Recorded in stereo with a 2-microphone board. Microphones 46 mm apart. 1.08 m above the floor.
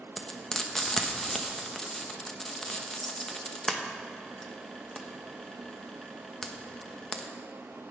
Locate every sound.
0.2 s frying: 10° left (ahead or behind), 1.0 m